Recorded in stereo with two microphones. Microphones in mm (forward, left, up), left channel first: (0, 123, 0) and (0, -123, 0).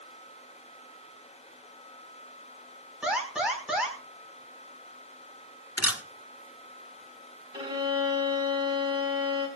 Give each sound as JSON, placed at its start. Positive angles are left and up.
{"t": 3.0, "sound": "an alarm", "side_deg": -5, "distance_m": 4.5}
{"t": 5.8, "sound": "a camera shutter", "side_deg": 75, "distance_m": 1.0}
{"t": 7.5, "sound": "a violin", "side_deg": -20, "distance_m": 4.5}